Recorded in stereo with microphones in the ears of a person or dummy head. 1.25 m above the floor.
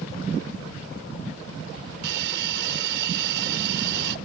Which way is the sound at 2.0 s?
70° right (ahead or behind).